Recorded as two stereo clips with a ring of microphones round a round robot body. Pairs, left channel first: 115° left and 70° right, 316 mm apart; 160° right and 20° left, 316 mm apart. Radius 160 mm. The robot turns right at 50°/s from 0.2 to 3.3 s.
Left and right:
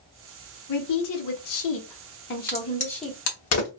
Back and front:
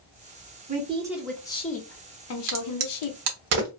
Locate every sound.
0.7 s a woman speaking: 85° left, 0.7 m; by 3.2 s 150° right, 0.7 m
2.5 s a crack: 25° left, 0.9 m; by 3.7 s 70° left, 0.9 m